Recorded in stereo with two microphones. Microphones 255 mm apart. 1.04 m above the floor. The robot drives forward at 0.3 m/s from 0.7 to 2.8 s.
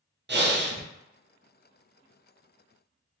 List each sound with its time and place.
0.3 s breathing: 45° right (ahead or behind), 0.5 m; by 0.8 s 40° right (ahead or behind), 0.6 m